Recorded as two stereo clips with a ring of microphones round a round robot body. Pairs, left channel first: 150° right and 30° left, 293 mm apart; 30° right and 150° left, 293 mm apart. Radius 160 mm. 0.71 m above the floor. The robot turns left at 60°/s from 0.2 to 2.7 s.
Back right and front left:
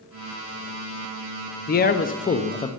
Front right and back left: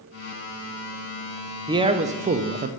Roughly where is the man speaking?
Behind right.